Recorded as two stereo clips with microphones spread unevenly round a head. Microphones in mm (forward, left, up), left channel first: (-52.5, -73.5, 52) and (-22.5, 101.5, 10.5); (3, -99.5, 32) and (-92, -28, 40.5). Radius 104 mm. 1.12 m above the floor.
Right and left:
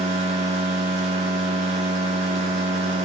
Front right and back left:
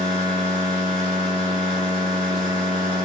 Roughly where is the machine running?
Left.